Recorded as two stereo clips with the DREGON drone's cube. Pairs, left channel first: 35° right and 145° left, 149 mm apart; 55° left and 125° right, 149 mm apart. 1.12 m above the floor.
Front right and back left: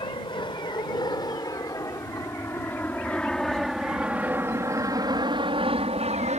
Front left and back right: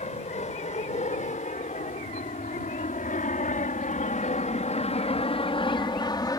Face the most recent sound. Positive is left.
turn(degrees=120)